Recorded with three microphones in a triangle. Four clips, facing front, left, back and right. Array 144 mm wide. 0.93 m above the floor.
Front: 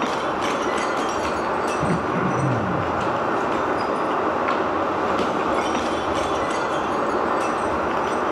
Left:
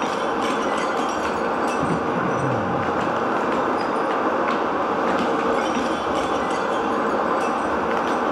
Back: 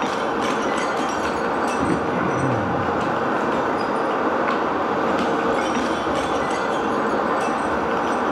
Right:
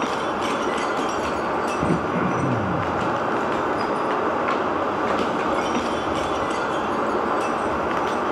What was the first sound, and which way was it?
Running water, 150° left.